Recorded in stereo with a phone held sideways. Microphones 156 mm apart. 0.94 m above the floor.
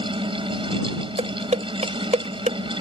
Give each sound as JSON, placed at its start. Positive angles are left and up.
{"t": 0.0, "sound": "a fan", "side_deg": -35}
{"t": 1.2, "sound": "dishes clattering", "side_deg": -45}